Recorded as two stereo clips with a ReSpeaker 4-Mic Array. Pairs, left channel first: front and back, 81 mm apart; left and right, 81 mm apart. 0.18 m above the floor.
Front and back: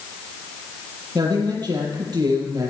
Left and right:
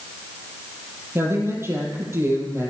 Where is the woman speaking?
145° right, 5.5 m.